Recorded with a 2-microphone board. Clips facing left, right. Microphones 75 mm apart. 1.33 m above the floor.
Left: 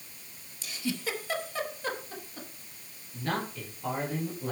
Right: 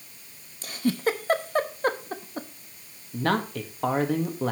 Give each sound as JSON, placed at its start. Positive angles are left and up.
{"t": 0.6, "sound": "a giggle", "side_deg": -45, "distance_m": 0.9}
{"t": 3.1, "sound": "a man speaking", "side_deg": -80, "distance_m": 1.7}